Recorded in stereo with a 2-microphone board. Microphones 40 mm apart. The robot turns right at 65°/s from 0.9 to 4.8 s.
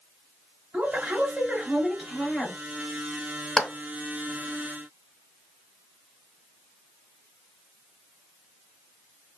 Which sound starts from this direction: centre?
A clap, at 3.6 s.